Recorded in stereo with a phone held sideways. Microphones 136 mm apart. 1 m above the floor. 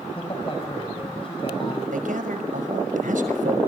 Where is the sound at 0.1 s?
40° left (ahead or behind), 5.5 m.